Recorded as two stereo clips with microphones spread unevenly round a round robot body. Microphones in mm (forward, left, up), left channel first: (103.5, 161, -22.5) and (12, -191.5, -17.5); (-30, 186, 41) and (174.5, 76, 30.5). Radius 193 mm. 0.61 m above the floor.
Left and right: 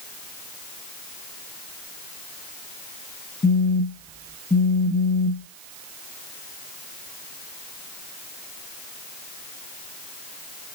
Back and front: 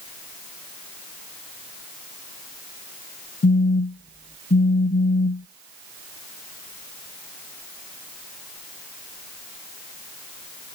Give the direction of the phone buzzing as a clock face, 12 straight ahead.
8 o'clock.